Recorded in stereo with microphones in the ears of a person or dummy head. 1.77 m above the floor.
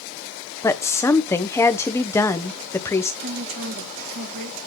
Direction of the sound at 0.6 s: 15° left (ahead or behind).